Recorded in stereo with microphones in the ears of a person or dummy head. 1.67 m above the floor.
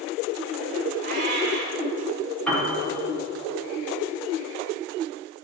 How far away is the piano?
About 1.8 m.